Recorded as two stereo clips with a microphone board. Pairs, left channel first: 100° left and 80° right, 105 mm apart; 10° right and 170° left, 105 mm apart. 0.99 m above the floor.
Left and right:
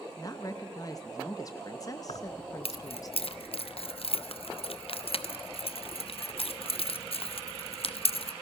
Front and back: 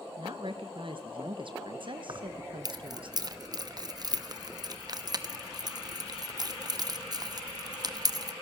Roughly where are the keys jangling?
Behind left.